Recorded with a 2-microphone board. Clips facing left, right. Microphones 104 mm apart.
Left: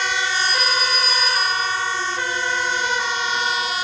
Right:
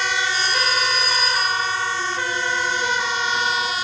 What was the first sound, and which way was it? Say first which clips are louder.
A phone ringing: even; 80° right.